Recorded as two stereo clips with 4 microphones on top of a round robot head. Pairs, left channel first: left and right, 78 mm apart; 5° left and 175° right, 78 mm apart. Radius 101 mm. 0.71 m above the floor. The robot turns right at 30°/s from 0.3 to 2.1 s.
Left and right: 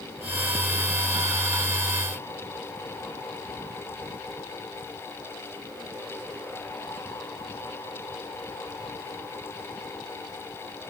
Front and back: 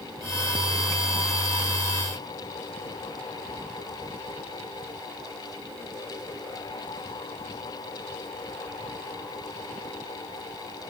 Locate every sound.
Only background noise.